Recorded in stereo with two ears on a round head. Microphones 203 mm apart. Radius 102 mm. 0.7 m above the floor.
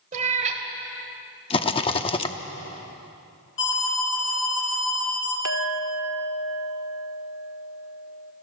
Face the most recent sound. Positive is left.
turn(degrees=-75)  # may be behind; listen again after turning